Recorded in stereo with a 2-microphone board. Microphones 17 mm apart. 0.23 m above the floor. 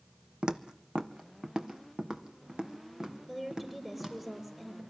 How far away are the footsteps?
About 0.7 m.